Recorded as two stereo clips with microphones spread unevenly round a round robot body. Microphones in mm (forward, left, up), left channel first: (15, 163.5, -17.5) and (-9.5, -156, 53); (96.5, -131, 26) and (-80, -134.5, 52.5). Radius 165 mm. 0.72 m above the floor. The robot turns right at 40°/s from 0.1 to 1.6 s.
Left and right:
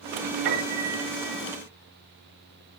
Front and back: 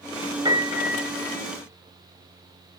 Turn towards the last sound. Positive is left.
turn(degrees=-65)